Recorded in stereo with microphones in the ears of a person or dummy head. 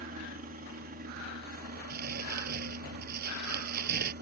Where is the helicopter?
45° right (ahead or behind); by 4.2 s 55° right (ahead or behind).